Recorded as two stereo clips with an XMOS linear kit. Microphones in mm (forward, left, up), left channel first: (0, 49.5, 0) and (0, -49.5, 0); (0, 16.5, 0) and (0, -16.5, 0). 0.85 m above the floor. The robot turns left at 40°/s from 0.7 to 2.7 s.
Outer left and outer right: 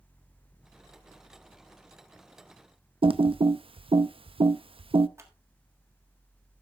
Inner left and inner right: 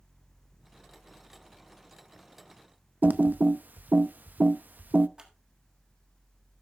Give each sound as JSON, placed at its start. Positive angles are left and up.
{"t": 3.0, "sound": "typing on a keyboard", "side_deg": -65, "distance_m": 0.5}
{"t": 5.2, "sound": "scissors", "side_deg": -30, "distance_m": 1.5}